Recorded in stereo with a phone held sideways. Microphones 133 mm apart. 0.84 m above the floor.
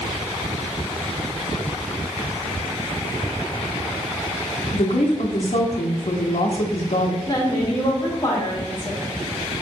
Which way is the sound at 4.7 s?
70° left (ahead or behind).